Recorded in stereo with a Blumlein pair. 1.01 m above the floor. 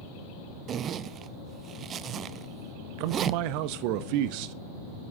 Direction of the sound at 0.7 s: 30° right.